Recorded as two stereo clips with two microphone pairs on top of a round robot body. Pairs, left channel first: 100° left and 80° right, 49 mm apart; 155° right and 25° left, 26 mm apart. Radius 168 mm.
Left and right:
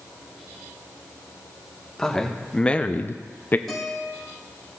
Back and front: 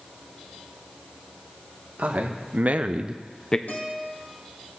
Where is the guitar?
170° right, 5 m.